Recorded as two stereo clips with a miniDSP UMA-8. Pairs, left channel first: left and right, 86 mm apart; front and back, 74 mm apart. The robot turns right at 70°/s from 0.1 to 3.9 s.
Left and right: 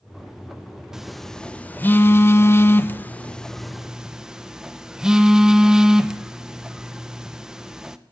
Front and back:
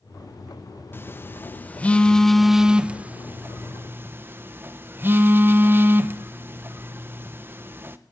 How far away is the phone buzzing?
About 0.6 m.